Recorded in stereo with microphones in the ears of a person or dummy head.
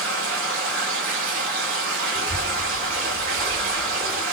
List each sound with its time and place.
0.0 s running water: 65° right (ahead or behind), 3 m
2.1 s a child speaking: 15° right (ahead or behind), 1.2 m